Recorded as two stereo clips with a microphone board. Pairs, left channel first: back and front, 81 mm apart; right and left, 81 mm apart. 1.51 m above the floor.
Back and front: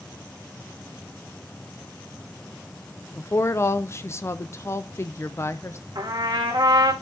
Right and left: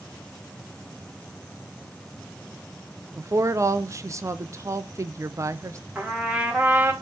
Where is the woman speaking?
130° left, 0.5 m.